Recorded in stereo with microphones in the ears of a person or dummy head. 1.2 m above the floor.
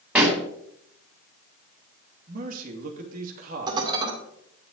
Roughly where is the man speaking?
Right.